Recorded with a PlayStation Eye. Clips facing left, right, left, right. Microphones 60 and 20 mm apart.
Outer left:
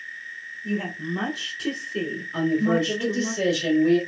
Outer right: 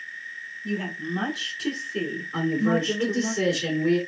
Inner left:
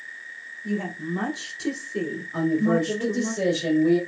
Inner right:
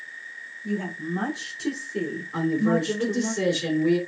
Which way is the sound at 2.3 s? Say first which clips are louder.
Outer left 2 dB, inner left 1 dB; 30° right (ahead or behind).